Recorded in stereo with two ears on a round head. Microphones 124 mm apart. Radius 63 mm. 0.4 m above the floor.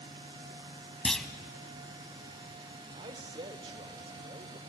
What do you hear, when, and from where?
1.1 s a clunk: 5° left (ahead or behind), 1.1 m
2.9 s a man speaking: 35° right (ahead or behind), 1.3 m